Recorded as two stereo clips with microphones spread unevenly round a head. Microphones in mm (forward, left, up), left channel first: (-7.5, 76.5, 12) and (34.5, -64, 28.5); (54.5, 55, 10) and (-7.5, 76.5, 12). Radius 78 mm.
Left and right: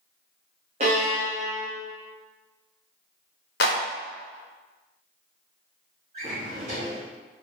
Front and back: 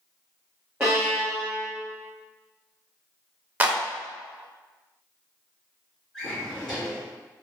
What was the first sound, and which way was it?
A violin, 120° right.